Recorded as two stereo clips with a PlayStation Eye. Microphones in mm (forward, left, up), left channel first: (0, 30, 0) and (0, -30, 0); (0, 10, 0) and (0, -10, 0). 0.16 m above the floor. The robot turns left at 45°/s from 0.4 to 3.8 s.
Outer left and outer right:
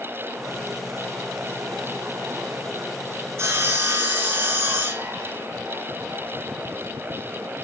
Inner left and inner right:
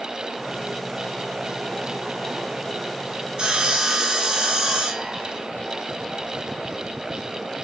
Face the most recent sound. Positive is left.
turn(degrees=-35)  # may be behind; listen again after turning